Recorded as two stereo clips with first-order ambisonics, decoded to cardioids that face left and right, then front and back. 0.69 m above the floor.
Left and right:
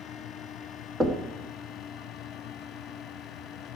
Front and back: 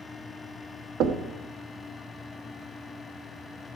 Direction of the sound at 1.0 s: 165° right.